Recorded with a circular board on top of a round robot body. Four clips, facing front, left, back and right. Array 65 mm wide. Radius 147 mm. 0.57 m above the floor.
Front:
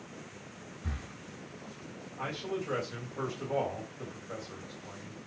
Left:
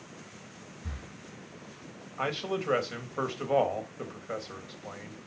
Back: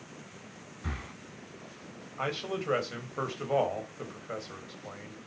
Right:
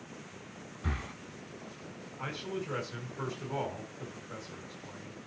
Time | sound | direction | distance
0.8 | breathing | 125° right | 0.8 m
2.2 | a man speaking | 120° left | 4 m